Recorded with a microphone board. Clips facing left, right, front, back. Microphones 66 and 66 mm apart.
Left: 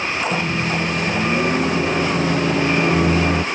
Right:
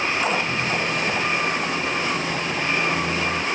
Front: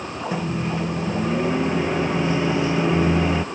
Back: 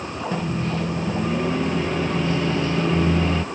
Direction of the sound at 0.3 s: 75° left.